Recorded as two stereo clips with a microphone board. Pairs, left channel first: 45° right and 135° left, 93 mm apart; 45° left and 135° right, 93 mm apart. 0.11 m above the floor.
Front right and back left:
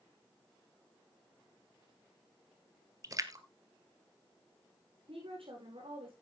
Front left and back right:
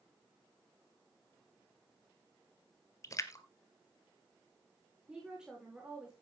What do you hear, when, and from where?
3.0 s a splash: 95° left, 1.0 m
5.1 s a woman speaking: 145° left, 8 m